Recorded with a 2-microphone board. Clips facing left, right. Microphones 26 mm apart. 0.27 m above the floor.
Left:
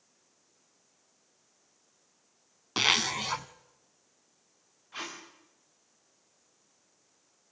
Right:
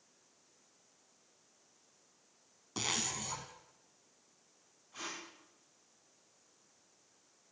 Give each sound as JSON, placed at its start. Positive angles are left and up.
{"t": 2.8, "sound": "a zipper", "side_deg": 60, "distance_m": 1.0}
{"t": 4.9, "sound": "tape being pulled", "side_deg": 50, "distance_m": 8.0}